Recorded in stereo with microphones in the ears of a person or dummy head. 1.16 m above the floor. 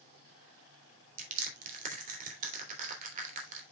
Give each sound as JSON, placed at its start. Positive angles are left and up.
{"t": 1.2, "sound": "crushing", "side_deg": -45, "distance_m": 3.0}